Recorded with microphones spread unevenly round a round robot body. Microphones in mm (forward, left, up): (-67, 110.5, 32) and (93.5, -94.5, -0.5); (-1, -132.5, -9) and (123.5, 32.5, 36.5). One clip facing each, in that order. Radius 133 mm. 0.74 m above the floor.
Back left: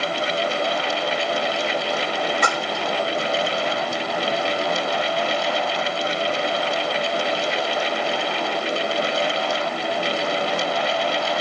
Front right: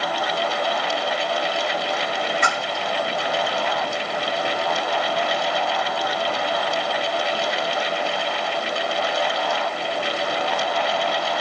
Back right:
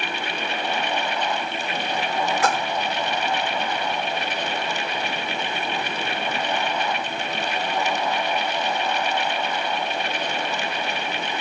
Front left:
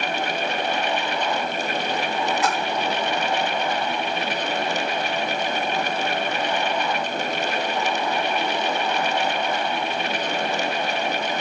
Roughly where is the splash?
Behind.